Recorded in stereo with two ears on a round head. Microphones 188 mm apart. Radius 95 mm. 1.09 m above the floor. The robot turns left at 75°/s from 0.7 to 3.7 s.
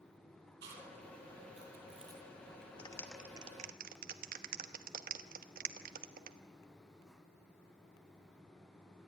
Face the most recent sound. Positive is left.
turn(degrees=-40)  # may be behind; listen again after turning